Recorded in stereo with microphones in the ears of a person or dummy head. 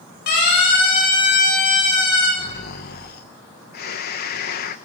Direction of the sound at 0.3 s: 45° left (ahead or behind).